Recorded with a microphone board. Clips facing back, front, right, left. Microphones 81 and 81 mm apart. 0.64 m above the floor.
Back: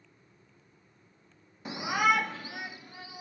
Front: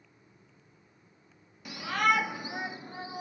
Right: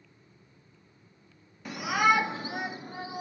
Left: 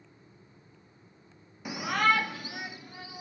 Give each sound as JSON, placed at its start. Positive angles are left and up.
{"t": 1.6, "sound": "a shout", "azimuth_deg": 160}